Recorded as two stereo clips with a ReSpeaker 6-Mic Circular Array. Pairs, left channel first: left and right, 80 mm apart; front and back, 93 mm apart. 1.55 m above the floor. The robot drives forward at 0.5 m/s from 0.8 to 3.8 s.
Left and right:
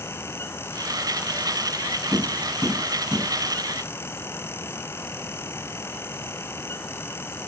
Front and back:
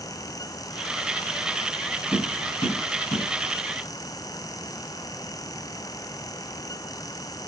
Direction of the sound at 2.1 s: 25° right.